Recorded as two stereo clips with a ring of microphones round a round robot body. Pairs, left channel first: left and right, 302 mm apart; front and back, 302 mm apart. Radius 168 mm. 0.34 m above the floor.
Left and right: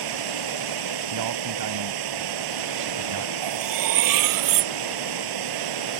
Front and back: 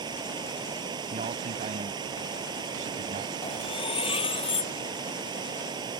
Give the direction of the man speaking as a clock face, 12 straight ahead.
4 o'clock.